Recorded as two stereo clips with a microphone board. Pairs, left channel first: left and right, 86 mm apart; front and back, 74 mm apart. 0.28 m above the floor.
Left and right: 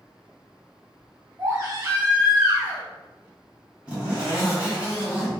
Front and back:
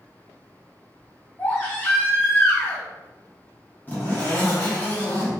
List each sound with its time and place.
1.4 s a baby crying: 55° right, 1.4 m
3.9 s a zipper: 30° right, 1.6 m